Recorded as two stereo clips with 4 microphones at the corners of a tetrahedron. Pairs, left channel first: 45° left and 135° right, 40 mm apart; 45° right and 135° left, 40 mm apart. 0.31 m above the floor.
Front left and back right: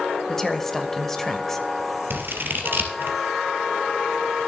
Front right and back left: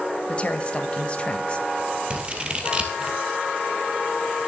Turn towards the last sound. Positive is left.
turn(degrees=-160)